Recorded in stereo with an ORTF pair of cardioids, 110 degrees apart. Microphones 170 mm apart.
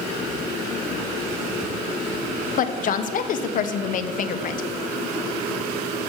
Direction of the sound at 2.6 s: 55° left.